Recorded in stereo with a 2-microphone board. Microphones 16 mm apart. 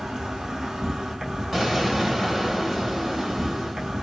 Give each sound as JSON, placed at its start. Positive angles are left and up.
{"t": 0.0, "sound": "an insect", "side_deg": -50, "distance_m": 1.4}
{"t": 1.5, "sound": "an explosion", "side_deg": -20, "distance_m": 1.9}